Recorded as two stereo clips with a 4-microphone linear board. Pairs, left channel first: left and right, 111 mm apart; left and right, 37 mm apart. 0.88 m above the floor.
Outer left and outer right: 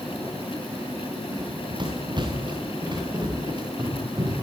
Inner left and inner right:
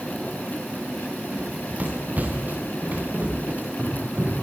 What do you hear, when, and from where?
1.3 s running footsteps: 45° right (ahead or behind), 6 m